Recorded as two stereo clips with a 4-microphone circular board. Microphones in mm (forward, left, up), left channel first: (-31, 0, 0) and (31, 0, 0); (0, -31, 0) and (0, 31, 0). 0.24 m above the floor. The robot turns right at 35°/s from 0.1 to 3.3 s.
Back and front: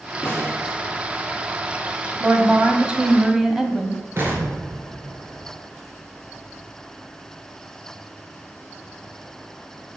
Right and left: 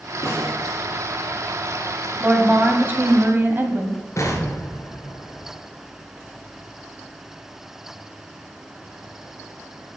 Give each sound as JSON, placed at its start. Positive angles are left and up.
{"t": 0.2, "sound": "a snare drum", "azimuth_deg": -130, "distance_m": 4.5}
{"t": 2.2, "sound": "a woman speaking", "azimuth_deg": 40, "distance_m": 1.7}
{"t": 4.2, "sound": "an explosion", "azimuth_deg": -50, "distance_m": 2.5}